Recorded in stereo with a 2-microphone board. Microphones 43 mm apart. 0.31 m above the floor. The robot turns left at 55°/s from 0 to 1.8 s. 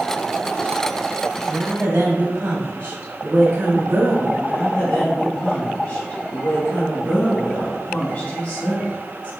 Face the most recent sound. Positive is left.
turn(degrees=35)  # may be behind; listen again after turning